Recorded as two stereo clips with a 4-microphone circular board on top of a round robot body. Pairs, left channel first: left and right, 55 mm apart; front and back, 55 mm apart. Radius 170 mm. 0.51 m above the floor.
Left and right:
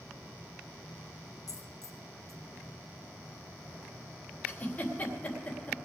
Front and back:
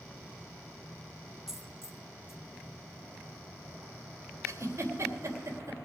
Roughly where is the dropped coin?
Left.